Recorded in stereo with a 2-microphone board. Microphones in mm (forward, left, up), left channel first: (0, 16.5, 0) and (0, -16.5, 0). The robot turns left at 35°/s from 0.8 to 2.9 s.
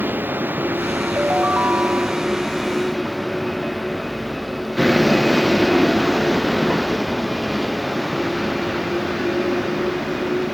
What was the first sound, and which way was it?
A vehicle, 110° right.